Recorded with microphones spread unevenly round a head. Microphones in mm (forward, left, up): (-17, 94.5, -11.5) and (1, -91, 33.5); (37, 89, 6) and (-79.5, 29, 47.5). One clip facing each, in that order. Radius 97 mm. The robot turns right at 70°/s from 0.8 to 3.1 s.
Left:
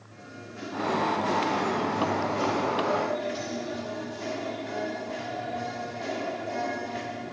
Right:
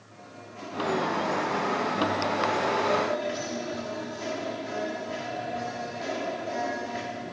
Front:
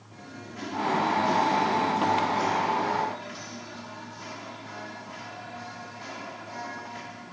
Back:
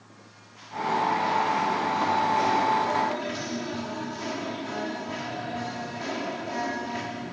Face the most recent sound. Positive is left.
turn(degrees=-175)